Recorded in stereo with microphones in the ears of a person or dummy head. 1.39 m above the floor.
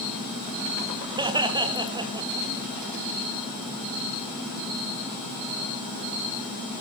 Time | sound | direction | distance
1.2 | laughter | 30° right (ahead or behind) | 1.7 m